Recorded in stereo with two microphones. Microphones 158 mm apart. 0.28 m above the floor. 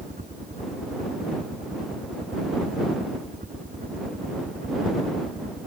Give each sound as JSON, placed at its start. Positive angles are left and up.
{"t": 0.0, "sound": "a helicopter", "side_deg": -55}